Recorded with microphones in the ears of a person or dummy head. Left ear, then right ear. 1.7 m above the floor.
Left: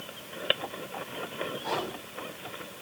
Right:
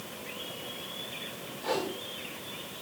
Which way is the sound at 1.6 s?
25° right (ahead or behind).